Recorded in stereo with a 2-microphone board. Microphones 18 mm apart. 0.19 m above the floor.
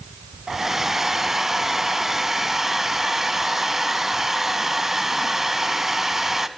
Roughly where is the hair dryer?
Right.